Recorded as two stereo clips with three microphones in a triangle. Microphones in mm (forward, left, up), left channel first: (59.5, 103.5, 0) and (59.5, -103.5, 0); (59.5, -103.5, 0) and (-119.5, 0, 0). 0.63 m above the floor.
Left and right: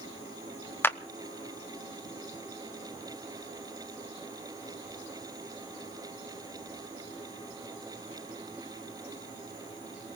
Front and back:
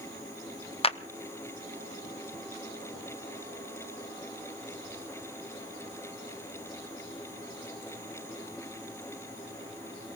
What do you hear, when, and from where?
0.8 s a clap: 15° left, 0.6 m